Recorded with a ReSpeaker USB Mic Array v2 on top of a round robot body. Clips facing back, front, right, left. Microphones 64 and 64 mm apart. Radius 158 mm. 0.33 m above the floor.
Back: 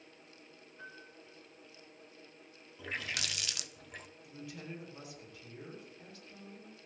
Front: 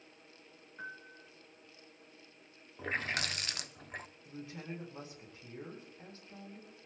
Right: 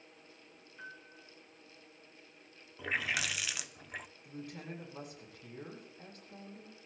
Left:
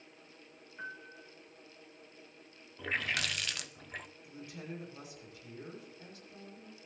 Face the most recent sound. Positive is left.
turn(degrees=-50)